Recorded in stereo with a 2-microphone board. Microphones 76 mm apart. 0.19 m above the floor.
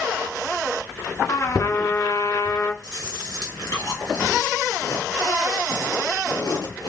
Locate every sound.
1.3 s a trumpet: 50° left (ahead or behind), 1.0 m
2.8 s chewing: 70° left (ahead or behind), 3.5 m